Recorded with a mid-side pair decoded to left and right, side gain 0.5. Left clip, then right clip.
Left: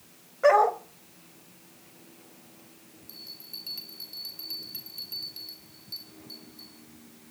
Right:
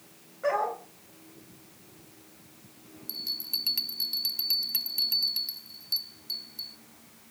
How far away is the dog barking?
About 3 m.